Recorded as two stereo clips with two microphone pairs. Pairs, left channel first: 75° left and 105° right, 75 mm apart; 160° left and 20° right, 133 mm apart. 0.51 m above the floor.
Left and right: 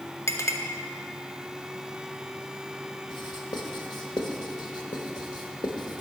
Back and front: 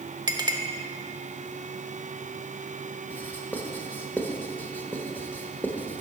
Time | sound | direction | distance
0.3 | a clink | 35° left | 0.8 m
3.1 | writing | 90° left | 1.0 m